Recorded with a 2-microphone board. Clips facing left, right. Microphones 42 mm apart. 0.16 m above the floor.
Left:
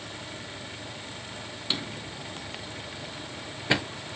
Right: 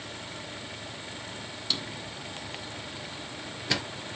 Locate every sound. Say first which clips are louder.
1.7 s a drawer: left 2 dB; 25° left (ahead or behind), 0.6 m